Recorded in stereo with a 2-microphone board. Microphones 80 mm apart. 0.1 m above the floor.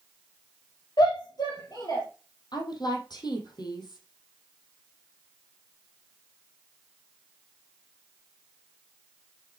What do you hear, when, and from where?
1.0 s a shout: 60° left (ahead or behind), 3.5 m; by 2.0 s 50° left (ahead or behind), 2.5 m
2.5 s a woman speaking: 60° left (ahead or behind), 3 m